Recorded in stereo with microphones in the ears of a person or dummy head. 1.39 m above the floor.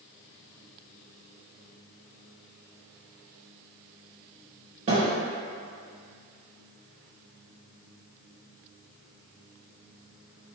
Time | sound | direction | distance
4.9 | a thud | 30° right (ahead or behind) | 1.8 m